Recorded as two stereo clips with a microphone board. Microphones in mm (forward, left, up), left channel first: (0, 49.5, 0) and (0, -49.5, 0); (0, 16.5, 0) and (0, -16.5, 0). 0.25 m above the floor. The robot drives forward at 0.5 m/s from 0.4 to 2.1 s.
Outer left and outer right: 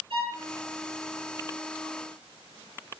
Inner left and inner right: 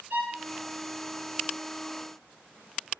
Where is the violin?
65° right (ahead or behind), 5.5 m.